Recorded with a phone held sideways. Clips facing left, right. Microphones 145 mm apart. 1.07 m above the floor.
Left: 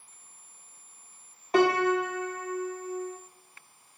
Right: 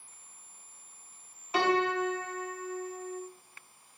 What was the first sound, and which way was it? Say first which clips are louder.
A piano: left 5 dB; 45° left (ahead or behind).